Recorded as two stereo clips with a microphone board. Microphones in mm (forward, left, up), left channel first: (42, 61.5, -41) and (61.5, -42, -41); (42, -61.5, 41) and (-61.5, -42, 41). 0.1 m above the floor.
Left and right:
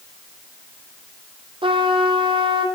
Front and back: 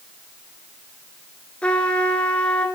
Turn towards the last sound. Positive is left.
turn(degrees=-90)